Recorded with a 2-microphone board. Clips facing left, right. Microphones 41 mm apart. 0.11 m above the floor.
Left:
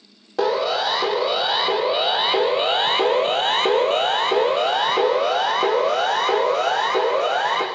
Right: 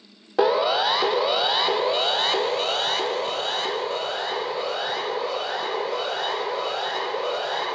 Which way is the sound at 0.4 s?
15° right (ahead or behind).